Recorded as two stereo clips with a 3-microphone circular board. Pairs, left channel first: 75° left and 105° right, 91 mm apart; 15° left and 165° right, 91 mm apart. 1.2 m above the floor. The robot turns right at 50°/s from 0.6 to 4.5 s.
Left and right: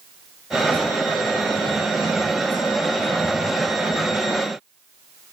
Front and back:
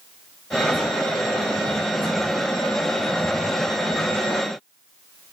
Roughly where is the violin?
I don't hear a violin.